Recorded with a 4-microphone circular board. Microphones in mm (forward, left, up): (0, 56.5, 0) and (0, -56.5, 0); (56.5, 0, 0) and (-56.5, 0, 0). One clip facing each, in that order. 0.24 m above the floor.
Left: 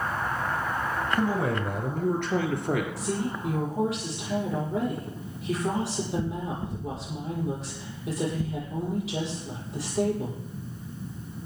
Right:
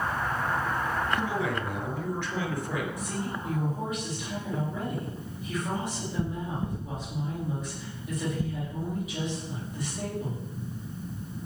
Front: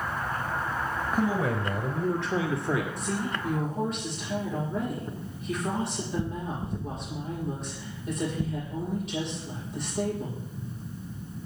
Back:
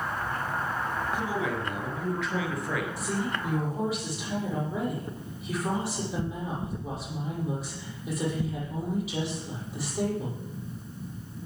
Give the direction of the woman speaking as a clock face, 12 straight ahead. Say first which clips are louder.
Left 4 dB, even; 9 o'clock.